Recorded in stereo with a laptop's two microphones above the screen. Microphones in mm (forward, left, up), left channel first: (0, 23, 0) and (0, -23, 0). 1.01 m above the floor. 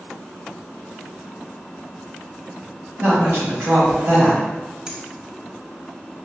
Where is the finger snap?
20° right (ahead or behind), 1.7 m.